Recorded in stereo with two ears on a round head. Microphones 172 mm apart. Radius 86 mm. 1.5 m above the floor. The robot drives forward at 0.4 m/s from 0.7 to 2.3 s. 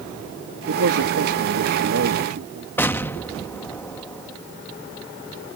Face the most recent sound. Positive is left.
turn(degrees=10)  # may be behind; listen again after turning